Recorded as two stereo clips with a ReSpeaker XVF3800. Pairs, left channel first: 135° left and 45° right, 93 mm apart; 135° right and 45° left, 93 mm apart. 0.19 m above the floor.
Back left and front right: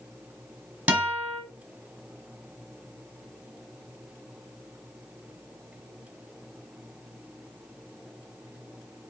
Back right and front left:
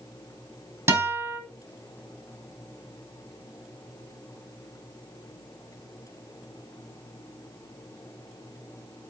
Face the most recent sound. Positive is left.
turn(degrees=20)